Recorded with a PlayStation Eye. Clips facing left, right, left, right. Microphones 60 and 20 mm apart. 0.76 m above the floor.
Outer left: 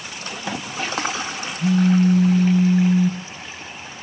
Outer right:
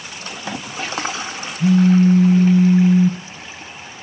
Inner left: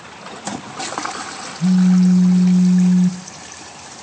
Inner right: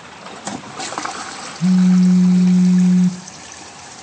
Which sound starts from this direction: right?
A phone buzzing, at 1.6 s.